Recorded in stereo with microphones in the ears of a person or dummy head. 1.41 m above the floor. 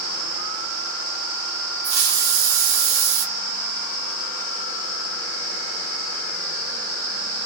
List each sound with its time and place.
1.8 s a hiss: 75° right (ahead or behind), 1.1 m